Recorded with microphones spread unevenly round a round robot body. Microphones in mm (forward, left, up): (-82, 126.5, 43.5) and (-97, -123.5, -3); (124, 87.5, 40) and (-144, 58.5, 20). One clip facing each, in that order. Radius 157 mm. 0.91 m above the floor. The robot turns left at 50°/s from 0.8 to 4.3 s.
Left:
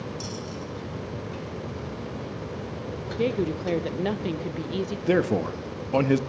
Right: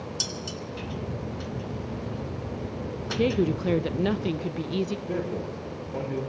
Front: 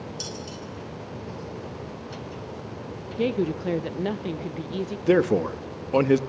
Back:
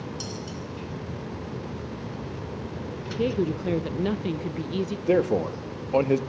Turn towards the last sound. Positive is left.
turn(degrees=75)